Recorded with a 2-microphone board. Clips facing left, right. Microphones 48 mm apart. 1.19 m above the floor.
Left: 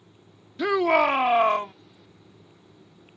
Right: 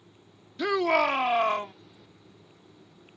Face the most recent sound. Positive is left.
turn(degrees=20)  # may be behind; listen again after turning